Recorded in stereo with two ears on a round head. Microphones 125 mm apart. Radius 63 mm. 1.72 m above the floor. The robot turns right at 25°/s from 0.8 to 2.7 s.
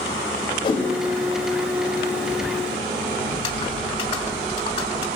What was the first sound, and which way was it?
A whoosh, 40° left (ahead or behind).